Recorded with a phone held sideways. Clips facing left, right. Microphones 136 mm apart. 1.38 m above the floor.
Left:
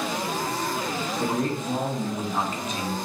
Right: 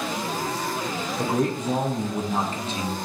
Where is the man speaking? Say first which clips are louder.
Right 3 dB; 70° right (ahead or behind), 1.0 m; by 3.0 s 20° right (ahead or behind), 1.0 m.